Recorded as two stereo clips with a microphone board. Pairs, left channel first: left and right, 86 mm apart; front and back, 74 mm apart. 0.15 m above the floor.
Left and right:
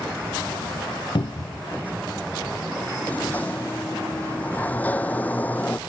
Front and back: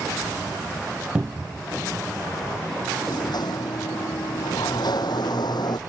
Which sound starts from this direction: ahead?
A sliding door, at 3.0 s.